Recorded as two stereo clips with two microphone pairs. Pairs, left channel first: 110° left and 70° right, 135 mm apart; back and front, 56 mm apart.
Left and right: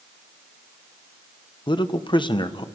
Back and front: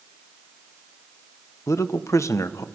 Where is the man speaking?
160° left, 0.8 m.